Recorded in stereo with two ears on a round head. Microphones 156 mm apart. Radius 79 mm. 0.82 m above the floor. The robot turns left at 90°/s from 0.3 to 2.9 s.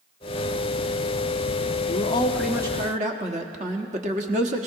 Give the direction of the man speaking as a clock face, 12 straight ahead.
10 o'clock.